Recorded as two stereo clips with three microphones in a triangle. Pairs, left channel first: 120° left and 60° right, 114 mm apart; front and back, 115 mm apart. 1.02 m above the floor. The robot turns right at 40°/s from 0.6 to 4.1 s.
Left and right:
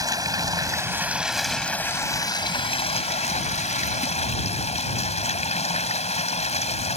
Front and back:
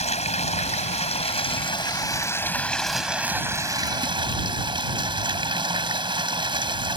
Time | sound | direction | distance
0.0 | running water | 5° right | ?